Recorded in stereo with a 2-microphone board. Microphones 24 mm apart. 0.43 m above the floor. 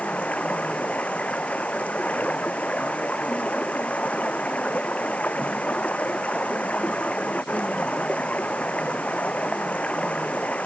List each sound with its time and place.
0.0 s running water: 70° left (ahead or behind)